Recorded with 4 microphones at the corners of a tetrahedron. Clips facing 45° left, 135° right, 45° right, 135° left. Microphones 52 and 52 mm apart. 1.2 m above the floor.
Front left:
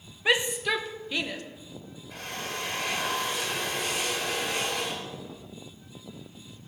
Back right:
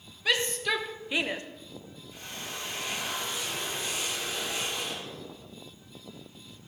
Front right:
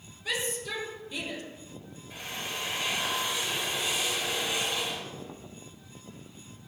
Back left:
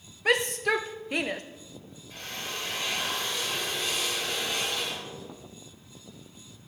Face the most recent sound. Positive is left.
turn(degrees=35)